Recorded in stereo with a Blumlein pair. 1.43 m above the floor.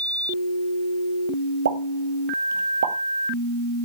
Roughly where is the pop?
Ahead right.